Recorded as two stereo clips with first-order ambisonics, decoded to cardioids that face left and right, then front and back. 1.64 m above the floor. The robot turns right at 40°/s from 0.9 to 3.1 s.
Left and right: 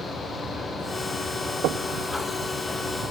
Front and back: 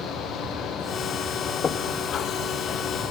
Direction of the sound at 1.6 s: 65° right.